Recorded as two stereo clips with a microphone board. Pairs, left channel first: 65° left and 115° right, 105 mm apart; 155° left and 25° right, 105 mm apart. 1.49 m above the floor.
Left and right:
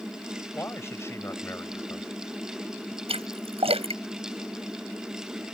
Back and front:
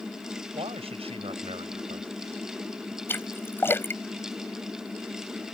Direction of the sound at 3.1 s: 135° right.